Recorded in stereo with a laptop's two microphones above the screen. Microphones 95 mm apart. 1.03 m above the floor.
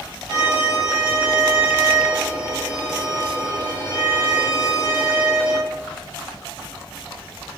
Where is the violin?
35° left (ahead or behind), 1.6 m.